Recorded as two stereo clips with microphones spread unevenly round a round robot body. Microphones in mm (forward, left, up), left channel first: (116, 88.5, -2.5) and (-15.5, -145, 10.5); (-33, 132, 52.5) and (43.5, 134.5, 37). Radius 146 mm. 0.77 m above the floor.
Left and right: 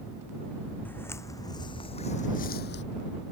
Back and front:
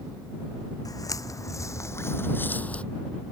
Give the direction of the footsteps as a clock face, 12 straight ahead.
7 o'clock.